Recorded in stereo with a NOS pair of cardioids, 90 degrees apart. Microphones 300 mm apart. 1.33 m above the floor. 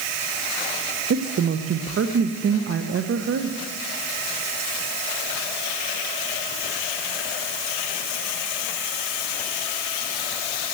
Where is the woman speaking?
45° right, 1.1 m.